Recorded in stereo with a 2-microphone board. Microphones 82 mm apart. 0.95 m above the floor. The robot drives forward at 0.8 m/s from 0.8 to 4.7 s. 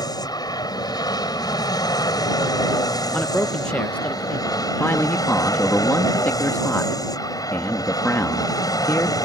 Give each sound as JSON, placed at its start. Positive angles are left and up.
{"t": 0.0, "sound": "an aircraft", "side_deg": 55}
{"t": 3.1, "sound": "a man speaking", "side_deg": 15}
{"t": 4.8, "sound": "a man speaking", "side_deg": 25}